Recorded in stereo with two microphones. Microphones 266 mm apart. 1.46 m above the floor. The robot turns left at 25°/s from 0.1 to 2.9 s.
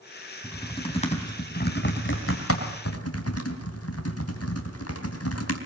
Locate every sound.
0.4 s typing on a keyboard: 10° left (ahead or behind), 3 m; by 5.6 s 65° left (ahead or behind), 3 m